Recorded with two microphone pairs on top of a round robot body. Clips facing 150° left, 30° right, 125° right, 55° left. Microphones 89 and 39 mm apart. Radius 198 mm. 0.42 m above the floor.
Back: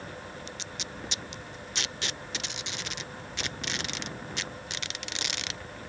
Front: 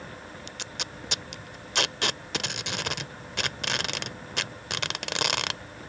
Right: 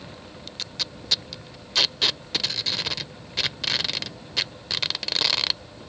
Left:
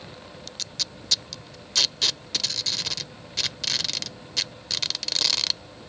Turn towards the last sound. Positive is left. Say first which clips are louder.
# front 1 dB, right 2 dB
turn(degrees=-50)